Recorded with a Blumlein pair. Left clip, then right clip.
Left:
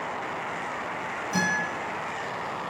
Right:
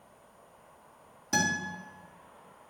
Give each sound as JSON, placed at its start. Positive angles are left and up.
{"t": 1.3, "sound": "a guitar", "azimuth_deg": -65, "distance_m": 3.5}